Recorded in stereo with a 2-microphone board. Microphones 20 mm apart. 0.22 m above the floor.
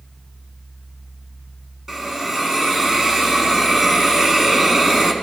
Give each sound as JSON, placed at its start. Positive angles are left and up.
{"t": 1.9, "sound": "a hiss", "side_deg": -20, "distance_m": 2.0}